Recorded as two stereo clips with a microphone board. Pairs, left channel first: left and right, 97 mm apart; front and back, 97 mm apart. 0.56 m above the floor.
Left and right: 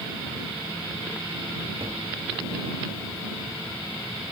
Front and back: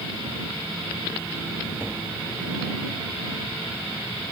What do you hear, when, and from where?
1.8 s tapping: 115° right